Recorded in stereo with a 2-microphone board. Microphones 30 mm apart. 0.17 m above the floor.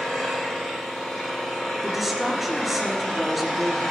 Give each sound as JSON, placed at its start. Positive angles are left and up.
{"t": 0.0, "sound": "an engine running", "side_deg": 10, "distance_m": 6.0}
{"t": 1.8, "sound": "a woman speaking", "side_deg": -5, "distance_m": 3.5}